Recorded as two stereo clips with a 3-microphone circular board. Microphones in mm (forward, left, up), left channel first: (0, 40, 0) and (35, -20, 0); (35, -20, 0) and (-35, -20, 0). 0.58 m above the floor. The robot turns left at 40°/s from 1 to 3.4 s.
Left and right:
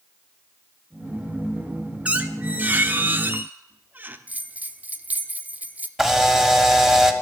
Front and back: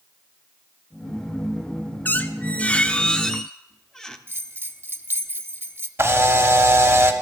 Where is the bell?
125° right, 0.5 m.